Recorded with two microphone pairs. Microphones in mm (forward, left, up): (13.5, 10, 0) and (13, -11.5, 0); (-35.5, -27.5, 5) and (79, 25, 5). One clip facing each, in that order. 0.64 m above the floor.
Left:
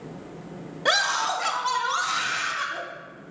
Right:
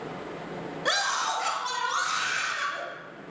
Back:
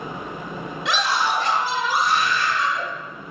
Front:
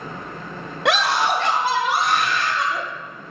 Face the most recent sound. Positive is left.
turn(degrees=5)